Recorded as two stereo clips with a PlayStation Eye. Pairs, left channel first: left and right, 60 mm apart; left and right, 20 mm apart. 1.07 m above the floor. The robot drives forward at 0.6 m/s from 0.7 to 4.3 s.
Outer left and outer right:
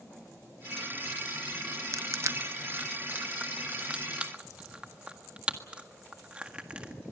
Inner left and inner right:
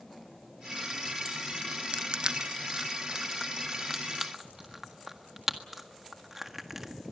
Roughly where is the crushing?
Right.